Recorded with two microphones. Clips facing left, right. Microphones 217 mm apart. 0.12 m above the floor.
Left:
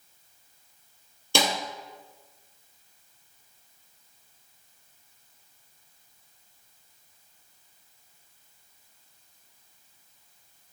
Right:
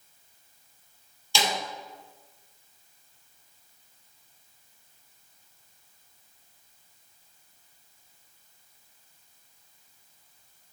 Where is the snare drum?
55° left (ahead or behind), 3 m.